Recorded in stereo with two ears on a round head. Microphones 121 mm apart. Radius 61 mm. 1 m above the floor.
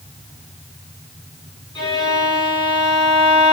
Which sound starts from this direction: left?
A violin, at 1.8 s.